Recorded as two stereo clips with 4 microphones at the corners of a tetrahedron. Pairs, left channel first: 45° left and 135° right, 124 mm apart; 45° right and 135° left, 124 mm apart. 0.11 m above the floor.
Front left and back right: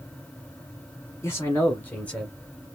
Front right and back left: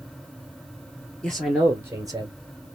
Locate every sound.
1.2 s a man speaking: 30° left, 1.1 m; by 2.4 s 125° left, 1.3 m